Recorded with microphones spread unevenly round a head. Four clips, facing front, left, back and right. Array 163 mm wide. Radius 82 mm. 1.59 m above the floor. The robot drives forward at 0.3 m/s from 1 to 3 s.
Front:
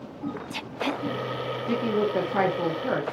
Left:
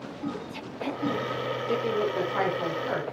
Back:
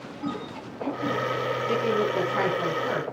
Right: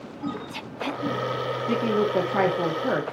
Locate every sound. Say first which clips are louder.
1.7 s a woman speaking: right 4 dB, front 1 dB; 60° right, 3.5 m; by 3.0 s 70° right, 3 m